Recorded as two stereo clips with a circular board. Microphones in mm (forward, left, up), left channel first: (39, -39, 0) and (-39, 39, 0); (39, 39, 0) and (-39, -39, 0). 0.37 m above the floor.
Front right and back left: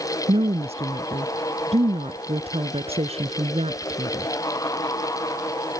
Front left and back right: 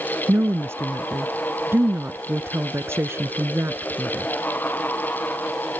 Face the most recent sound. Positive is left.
turn(degrees=155)